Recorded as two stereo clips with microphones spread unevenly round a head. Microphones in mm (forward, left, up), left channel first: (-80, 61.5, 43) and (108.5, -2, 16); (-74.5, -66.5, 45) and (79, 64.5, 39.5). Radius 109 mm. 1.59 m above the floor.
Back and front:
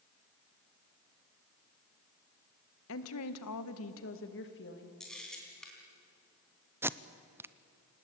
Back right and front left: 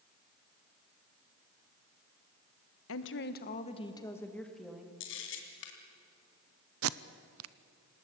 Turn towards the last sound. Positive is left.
turn(degrees=60)